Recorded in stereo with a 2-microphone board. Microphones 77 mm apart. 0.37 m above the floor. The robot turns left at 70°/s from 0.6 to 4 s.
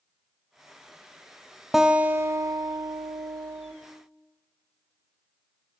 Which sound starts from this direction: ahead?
A guitar, at 1.7 s.